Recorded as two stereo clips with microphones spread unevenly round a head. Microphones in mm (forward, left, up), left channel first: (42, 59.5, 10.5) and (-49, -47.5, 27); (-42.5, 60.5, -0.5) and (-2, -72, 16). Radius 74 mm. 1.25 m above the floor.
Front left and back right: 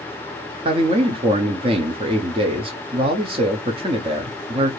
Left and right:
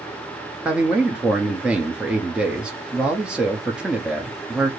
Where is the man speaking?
160° right, 0.6 m.